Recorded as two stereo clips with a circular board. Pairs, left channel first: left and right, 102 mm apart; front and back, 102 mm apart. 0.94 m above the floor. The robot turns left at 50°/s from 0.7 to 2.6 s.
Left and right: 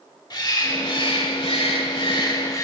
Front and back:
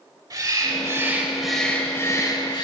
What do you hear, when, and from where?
0.3 s a bird: 130° left, 1.2 m; by 2.6 s 35° left, 1.2 m